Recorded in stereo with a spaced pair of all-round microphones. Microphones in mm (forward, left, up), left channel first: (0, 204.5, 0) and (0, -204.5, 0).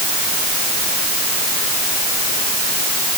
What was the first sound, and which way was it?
Only background noise.